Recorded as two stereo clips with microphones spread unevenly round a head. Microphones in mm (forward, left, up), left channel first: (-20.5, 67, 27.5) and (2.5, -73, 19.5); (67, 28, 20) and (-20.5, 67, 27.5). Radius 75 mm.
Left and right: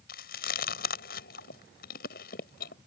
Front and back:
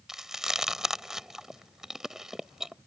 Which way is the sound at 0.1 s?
70° left.